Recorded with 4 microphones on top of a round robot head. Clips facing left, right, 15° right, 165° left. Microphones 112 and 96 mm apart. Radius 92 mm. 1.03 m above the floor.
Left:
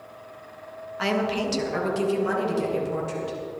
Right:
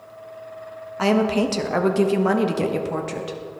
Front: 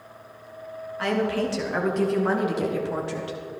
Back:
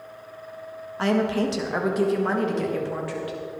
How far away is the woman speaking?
About 1.5 m.